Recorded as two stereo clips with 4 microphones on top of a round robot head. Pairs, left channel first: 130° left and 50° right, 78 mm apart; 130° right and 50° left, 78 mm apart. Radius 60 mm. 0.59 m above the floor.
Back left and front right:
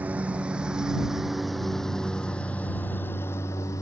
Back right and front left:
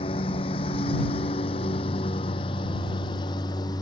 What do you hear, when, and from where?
0.0 s a lawn mower: 120° right; by 3.8 s 175° right